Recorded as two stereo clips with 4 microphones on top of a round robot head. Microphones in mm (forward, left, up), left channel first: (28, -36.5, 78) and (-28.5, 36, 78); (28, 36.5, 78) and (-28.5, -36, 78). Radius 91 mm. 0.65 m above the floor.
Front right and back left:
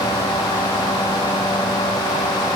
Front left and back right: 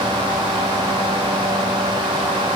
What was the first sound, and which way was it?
Only background noise.